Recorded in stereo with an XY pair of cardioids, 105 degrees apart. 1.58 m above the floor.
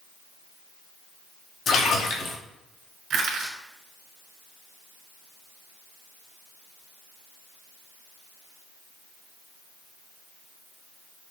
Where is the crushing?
60° right, 1.8 m.